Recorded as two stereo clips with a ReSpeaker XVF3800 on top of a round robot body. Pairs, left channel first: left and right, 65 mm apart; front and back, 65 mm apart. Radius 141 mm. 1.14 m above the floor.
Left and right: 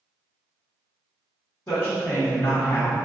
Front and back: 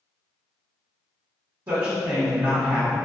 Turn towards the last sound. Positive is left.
turn(degrees=140)